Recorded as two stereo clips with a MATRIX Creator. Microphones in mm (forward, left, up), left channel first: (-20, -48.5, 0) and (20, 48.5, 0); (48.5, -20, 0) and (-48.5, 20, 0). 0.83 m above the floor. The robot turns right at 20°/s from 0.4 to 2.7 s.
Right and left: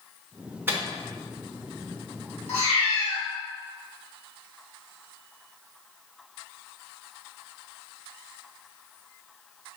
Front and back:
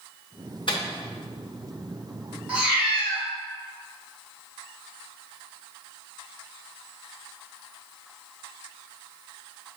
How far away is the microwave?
About 0.8 m.